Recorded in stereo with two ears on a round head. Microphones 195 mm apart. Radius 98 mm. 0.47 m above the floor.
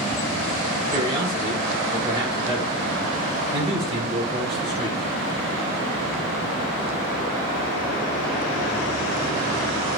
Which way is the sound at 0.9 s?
25° right (ahead or behind).